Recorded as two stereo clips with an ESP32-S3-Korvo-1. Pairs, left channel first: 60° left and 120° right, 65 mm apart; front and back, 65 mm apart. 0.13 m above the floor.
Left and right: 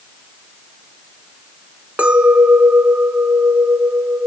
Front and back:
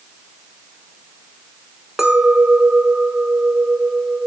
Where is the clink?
115° right, 0.7 m.